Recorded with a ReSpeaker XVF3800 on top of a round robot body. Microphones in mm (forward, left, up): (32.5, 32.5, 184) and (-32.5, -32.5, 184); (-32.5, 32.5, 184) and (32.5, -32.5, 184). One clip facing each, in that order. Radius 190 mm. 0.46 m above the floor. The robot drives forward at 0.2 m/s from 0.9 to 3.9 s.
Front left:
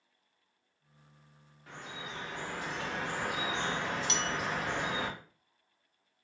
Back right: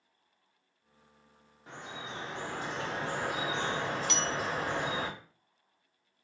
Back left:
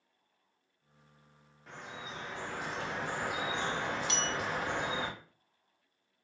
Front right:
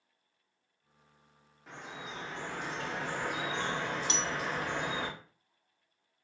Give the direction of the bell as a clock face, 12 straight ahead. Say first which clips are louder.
Back right 1 dB, even; 12 o'clock.